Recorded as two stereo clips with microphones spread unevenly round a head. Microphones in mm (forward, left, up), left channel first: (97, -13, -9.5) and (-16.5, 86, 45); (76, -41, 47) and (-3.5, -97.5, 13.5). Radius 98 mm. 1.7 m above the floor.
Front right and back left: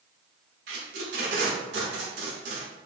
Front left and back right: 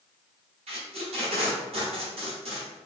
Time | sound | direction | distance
0.7 | tape being pulled | 175° left | 0.6 m